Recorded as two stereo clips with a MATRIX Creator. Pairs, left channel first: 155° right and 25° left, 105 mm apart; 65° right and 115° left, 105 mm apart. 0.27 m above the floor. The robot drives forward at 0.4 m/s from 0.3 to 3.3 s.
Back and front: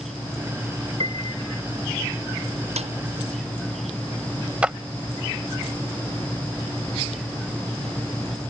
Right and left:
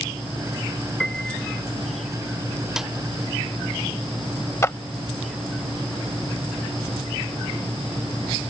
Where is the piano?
15° left; by 1.6 s 20° left.